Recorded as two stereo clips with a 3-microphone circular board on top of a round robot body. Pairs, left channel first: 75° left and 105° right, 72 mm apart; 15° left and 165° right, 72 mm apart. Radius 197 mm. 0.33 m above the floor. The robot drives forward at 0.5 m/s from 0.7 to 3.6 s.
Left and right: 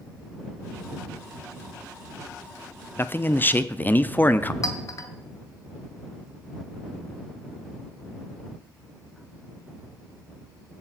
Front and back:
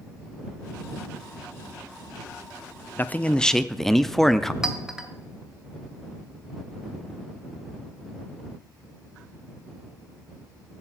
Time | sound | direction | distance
3.0 | a man speaking | 50° left | 0.9 m
4.6 | a clink | 115° left | 1.6 m